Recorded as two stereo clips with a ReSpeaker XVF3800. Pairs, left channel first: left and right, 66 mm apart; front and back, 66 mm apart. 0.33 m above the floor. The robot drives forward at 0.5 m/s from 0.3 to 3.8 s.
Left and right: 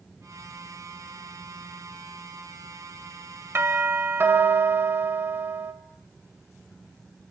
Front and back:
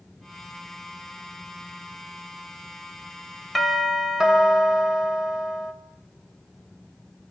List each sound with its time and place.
3.5 s a doorbell: 95° right, 1.7 m; by 5.7 s 100° right, 1.7 m